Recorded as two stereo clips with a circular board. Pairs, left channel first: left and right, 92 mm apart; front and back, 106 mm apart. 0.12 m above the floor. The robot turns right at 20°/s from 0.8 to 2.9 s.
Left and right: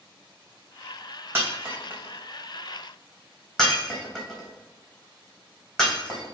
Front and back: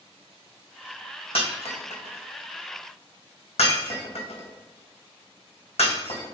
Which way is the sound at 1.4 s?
25° right.